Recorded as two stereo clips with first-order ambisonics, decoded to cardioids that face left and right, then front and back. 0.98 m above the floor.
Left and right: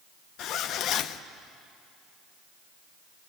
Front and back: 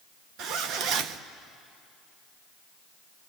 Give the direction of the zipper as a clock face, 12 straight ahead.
7 o'clock.